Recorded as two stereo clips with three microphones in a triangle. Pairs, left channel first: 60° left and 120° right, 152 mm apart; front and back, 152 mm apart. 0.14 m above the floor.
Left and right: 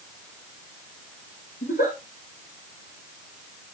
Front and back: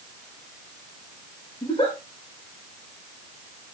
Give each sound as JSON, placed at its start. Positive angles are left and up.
{"t": 1.6, "sound": "a giggle", "azimuth_deg": 60, "distance_m": 6.0}